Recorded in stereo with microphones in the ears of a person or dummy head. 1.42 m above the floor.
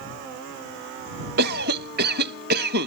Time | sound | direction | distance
1.4 | a cough | 55° right (ahead or behind) | ?